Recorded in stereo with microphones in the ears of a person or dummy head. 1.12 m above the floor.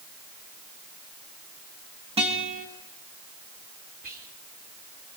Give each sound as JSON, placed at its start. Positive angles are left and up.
{"t": 2.2, "sound": "a guitar", "side_deg": -25, "distance_m": 3.5}
{"t": 4.0, "sound": "whispering", "side_deg": -45, "distance_m": 4.0}